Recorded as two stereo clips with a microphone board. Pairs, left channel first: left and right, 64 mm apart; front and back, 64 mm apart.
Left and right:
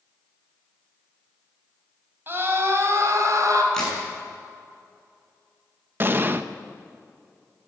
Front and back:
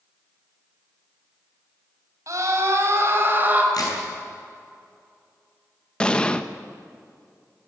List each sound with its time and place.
2.3 s a scream: 145° right, 4.5 m; by 3.6 s 115° right, 3.5 m
3.7 s a crack: 10° left, 7 m
6.0 s an explosion: 65° right, 0.9 m